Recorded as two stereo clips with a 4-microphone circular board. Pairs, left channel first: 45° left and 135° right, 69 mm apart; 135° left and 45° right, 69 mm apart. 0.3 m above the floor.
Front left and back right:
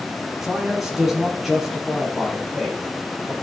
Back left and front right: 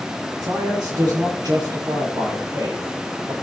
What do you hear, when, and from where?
0.4 s a man speaking: 50° right, 6.5 m; by 3.3 s 45° right, 8 m